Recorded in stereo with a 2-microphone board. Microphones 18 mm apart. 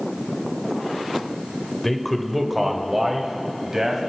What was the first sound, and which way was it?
A man speaking, 15° left (ahead or behind).